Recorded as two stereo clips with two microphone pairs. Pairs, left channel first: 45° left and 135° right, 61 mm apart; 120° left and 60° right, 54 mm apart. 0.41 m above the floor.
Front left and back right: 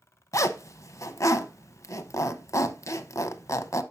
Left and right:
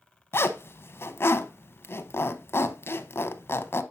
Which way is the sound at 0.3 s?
75° left.